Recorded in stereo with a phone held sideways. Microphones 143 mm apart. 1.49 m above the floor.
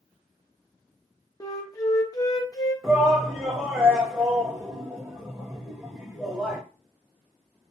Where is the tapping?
I don't hear tapping.